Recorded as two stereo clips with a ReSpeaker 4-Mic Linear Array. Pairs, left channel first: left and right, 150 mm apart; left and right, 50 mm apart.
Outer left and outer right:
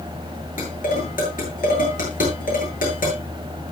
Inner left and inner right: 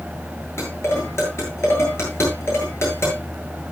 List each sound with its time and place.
0.6 s dishes clattering: 60° left (ahead or behind), 8.5 m